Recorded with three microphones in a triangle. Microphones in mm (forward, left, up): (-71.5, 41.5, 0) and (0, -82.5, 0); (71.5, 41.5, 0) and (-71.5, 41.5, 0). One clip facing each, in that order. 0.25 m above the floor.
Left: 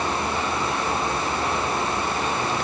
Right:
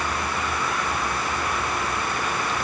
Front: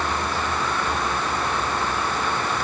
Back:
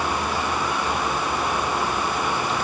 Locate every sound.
Only background noise.